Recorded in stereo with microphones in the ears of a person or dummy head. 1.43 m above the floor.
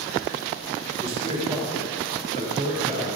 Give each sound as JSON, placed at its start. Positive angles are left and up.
{"t": 1.0, "sound": "a man speaking", "side_deg": -35, "distance_m": 5.5}